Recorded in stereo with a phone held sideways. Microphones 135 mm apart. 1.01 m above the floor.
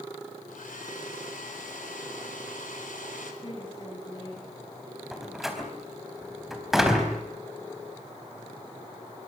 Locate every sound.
0.5 s a hair dryer: 80° left, 4.5 m
3.4 s a woman speaking: 35° left (ahead or behind), 7.5 m
5.1 s a door slam: 5° right (ahead or behind), 4 m